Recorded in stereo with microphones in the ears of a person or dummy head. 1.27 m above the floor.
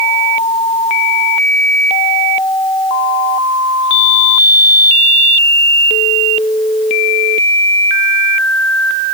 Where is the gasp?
No gasp in this recording.